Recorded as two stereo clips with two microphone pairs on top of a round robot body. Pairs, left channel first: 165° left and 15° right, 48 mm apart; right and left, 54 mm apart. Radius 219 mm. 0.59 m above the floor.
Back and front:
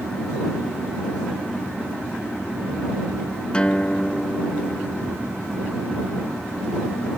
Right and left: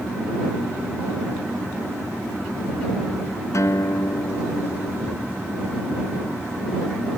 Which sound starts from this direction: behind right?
A guitar, at 3.5 s.